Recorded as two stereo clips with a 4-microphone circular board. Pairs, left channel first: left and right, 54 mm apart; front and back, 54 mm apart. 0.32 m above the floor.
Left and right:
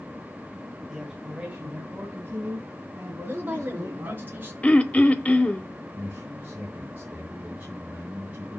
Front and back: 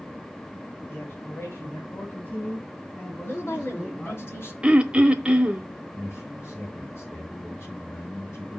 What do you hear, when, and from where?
0.9 s a man speaking: 10° right, 2 m; by 4.2 s 70° right, 4 m
3.2 s a woman speaking: 40° right, 3.5 m
4.6 s throat clearing: 130° left, 0.9 m
5.9 s a man speaking: 35° right, 4 m